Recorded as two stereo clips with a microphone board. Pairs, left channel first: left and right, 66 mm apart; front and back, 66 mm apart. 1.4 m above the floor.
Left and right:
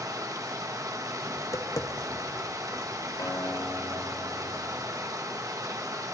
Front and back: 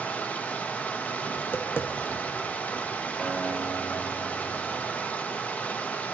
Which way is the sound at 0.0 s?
65° right.